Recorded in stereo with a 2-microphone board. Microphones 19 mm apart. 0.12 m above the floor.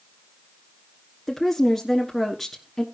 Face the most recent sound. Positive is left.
turn(degrees=10)  # may be behind; listen again after turning